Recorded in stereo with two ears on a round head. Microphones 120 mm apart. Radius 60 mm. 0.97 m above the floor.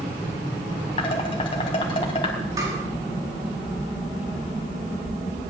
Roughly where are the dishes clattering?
Left.